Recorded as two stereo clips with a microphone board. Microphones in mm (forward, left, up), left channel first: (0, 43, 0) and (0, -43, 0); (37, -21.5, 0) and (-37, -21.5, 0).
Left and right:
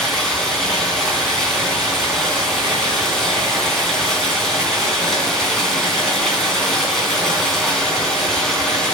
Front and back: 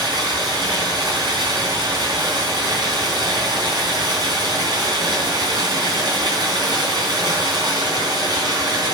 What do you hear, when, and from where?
0.0 s running water: 175° left, 3.5 m